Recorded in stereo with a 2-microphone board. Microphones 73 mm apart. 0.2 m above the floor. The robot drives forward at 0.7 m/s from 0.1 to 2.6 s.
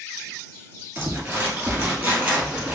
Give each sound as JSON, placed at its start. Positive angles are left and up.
{"t": 0.9, "sound": "crumpling", "side_deg": -30, "distance_m": 1.6}